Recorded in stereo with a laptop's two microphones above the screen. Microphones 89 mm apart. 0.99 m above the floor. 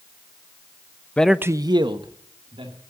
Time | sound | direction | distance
1.2 | a man speaking | 15° left (ahead or behind) | 0.6 m